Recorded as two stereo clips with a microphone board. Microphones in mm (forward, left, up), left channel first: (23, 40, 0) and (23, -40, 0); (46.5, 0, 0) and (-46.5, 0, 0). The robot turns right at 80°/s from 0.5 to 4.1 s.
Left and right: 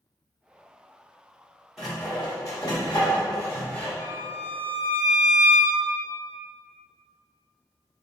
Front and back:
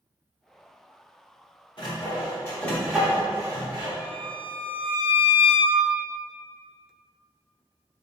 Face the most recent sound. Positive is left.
turn(degrees=65)